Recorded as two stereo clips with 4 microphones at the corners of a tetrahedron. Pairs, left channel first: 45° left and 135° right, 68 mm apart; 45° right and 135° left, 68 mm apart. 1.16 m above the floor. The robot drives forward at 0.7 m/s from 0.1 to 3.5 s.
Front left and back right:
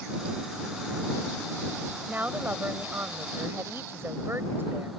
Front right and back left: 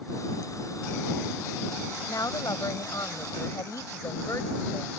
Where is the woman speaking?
70° right; by 4.9 s 80° right.